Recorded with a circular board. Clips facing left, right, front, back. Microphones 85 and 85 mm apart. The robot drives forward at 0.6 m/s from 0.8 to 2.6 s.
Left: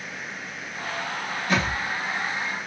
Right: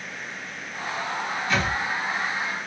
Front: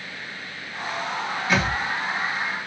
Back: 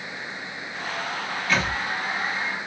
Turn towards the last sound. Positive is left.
turn(degrees=85)